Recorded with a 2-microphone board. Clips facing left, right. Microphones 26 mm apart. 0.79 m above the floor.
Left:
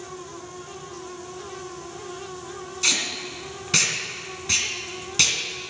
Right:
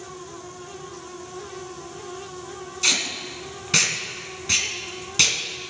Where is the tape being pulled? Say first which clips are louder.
Right 1 dB; centre (ahead or behind), 2 m.